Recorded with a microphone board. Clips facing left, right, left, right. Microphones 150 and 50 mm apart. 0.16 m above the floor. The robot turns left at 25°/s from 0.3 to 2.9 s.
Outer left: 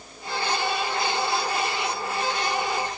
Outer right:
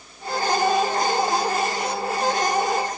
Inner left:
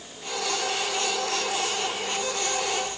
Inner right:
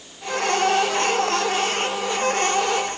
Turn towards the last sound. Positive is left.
No sound to turn to.